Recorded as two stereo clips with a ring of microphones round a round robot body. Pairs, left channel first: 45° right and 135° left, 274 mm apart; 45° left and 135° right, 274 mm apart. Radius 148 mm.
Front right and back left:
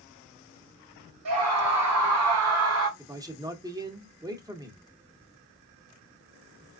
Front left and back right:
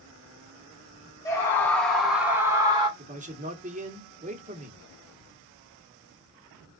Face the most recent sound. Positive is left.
turn(degrees=-160)